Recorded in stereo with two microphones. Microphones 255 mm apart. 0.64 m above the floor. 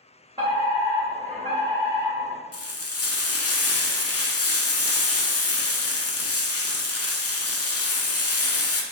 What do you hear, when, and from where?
0.4 s a fire alarm: 20° right (ahead or behind), 1.8 m
2.5 s frying: 65° left (ahead or behind), 0.5 m